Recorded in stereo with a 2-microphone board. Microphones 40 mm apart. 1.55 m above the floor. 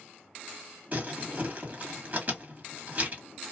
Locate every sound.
0.9 s crumpling: 35° right (ahead or behind), 1.4 m